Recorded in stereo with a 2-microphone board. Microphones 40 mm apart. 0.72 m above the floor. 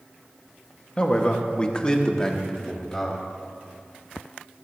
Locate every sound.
1.0 s a man speaking: 25° left (ahead or behind), 1.2 m; by 3.2 s 10° left (ahead or behind), 3 m